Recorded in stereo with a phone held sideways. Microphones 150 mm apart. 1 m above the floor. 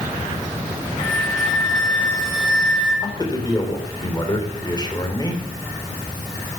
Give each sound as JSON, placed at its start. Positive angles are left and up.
{"t": 1.0, "sound": "a flute", "side_deg": 30, "distance_m": 9.0}
{"t": 3.0, "sound": "a man speaking", "side_deg": 30, "distance_m": 3.0}